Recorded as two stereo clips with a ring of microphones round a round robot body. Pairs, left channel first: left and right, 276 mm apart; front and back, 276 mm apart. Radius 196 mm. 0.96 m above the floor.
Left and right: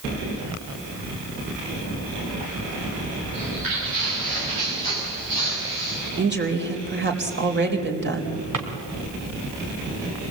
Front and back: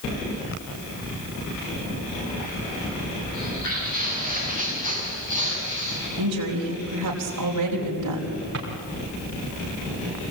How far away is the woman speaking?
About 4 m.